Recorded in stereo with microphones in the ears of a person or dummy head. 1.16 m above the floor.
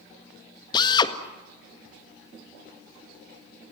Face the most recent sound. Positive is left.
turn(degrees=25)  # may be behind; listen again after turning